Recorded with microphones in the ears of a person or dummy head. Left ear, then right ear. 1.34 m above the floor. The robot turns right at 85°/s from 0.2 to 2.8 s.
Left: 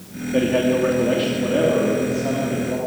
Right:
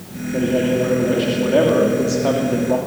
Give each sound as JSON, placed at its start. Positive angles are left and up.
{"t": 0.3, "sound": "a man speaking", "azimuth_deg": 95, "distance_m": 2.5}